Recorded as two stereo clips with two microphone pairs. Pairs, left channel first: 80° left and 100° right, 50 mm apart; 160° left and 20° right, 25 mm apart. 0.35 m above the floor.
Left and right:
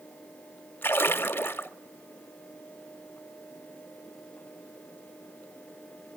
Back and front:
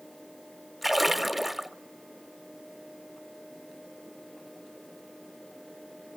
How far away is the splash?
About 1.0 m.